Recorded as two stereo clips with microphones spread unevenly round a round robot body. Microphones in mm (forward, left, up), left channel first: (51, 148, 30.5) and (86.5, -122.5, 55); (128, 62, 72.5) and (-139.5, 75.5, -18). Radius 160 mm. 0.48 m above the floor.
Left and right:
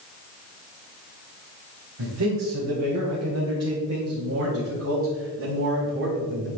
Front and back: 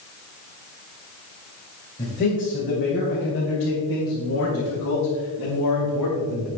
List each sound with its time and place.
2.0 s a man speaking: 75° right, 4 m; by 6.5 s 35° right, 4.5 m